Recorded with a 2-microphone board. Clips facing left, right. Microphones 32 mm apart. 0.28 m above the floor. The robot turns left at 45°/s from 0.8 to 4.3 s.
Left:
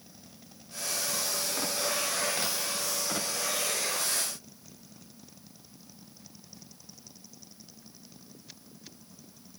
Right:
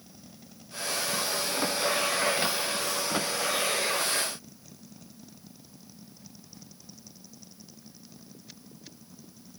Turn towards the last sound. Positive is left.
No sound to turn to.